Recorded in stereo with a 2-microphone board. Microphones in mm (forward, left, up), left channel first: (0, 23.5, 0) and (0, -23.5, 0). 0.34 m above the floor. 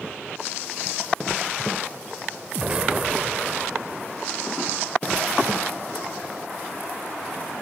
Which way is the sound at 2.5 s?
25° right (ahead or behind).